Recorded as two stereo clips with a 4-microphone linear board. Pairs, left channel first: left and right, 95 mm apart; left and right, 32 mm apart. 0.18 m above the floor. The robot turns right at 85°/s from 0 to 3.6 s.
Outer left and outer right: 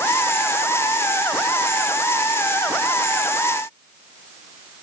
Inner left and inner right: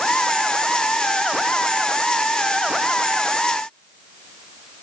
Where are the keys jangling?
I don't hear keys jangling.